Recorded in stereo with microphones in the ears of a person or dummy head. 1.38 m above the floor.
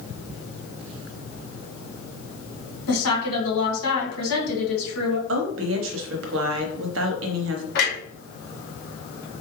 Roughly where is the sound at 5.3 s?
Right.